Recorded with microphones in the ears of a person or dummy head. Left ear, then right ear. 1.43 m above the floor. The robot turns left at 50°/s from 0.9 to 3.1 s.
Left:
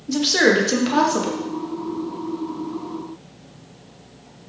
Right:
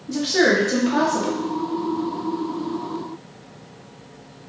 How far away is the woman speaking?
About 0.6 m.